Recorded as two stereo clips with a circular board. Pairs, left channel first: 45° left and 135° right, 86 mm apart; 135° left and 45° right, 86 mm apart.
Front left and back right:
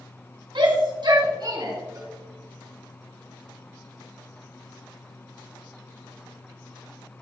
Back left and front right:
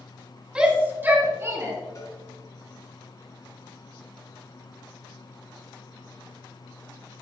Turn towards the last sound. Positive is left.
turn(degrees=180)